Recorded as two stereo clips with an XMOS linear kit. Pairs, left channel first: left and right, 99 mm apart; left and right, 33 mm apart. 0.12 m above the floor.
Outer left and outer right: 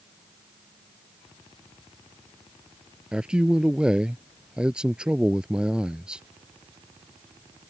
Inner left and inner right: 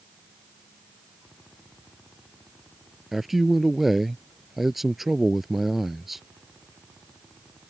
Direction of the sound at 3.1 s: 10° right (ahead or behind).